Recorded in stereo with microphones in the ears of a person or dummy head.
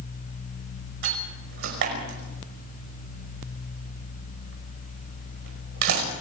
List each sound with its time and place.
1.0 s a door slam: 60° right (ahead or behind), 5.5 m